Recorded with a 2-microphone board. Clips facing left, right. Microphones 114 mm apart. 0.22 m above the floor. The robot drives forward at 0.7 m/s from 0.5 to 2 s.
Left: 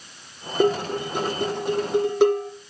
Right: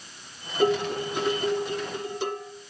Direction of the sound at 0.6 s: 50° left (ahead or behind).